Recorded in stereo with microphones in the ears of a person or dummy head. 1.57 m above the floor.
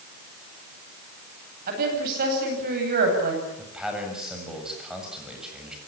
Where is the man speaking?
5° right (ahead or behind), 7.5 m.